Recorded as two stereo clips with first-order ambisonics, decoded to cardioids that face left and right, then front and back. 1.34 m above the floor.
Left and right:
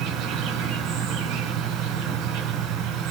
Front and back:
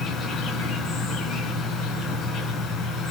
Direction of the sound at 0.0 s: 55° right.